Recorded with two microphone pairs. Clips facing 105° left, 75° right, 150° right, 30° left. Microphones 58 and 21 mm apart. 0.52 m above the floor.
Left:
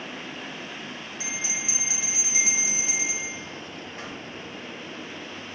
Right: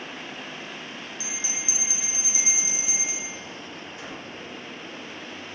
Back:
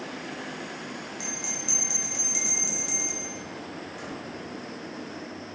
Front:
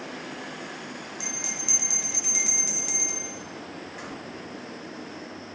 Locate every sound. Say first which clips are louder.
1.2 s a bell: left 5 dB, front 2 dB; 95° left, 1.0 m